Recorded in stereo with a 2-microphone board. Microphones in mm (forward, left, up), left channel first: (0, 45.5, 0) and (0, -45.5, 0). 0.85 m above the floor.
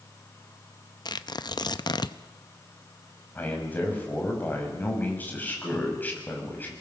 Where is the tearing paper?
55° left (ahead or behind), 0.7 m.